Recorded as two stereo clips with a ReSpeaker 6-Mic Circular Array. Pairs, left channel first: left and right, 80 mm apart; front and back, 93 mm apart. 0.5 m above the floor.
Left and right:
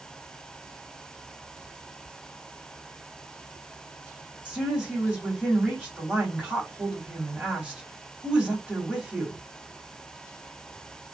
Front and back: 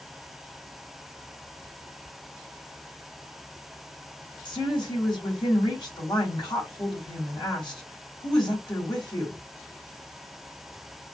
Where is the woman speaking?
15° right, 1.8 m.